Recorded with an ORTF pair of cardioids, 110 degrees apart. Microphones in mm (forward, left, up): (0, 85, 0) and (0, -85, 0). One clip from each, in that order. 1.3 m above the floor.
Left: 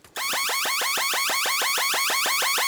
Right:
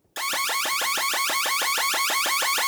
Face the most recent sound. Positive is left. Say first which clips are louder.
# even
turn(degrees=10)